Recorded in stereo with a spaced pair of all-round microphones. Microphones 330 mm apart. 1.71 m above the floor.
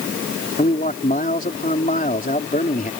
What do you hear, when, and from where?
0.6 s a man speaking: 25° left (ahead or behind)